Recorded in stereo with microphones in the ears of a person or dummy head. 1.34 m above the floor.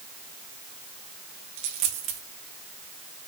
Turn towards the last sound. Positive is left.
turn(degrees=-30)  # may be behind; listen again after turning